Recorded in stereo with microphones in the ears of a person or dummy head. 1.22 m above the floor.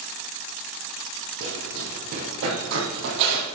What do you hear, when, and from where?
1.4 s running footsteps: 50° right (ahead or behind), 3 m; by 3.5 s 60° right (ahead or behind), 2.5 m